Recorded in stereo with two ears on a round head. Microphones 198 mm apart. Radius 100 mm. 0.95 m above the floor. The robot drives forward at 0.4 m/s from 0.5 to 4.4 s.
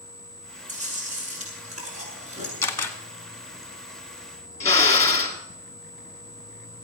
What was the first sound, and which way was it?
Chewing, 40° right (ahead or behind).